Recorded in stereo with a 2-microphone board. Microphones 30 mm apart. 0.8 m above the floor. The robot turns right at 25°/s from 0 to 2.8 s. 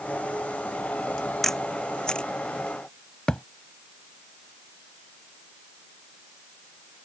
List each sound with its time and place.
1.4 s a camera shutter: 10° left (ahead or behind); by 2.3 s 35° left (ahead or behind)
3.3 s a thud: 35° left (ahead or behind)